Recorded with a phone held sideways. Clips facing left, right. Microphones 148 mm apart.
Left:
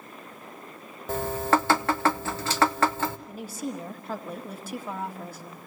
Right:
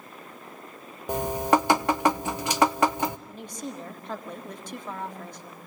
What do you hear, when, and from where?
1.1 s dripping: 15° right (ahead or behind), 0.9 m
3.3 s a woman speaking: 5° left (ahead or behind), 2 m